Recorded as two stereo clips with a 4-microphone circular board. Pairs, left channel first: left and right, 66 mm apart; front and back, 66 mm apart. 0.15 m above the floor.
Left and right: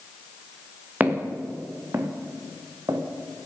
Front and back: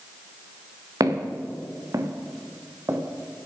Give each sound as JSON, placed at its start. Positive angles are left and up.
{"t": 1.0, "sound": "footsteps", "azimuth_deg": -155, "distance_m": 2.5}